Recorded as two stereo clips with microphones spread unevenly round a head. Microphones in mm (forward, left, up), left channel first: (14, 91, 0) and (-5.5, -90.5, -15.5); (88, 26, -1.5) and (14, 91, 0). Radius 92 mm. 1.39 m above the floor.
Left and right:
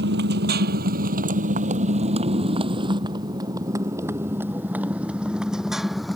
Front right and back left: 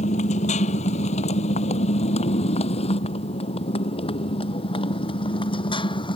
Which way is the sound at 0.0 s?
65° right.